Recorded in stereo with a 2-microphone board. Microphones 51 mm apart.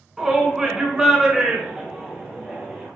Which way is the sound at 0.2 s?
10° right (ahead or behind).